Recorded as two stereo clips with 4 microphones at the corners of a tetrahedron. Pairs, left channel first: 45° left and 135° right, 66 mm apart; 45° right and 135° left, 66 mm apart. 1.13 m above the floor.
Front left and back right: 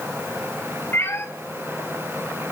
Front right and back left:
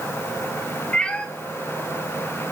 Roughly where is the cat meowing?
Ahead.